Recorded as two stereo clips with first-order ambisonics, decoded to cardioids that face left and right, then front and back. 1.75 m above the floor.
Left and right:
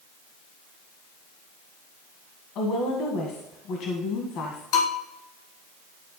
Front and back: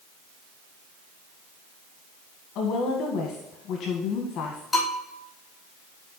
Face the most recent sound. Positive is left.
turn(degrees=85)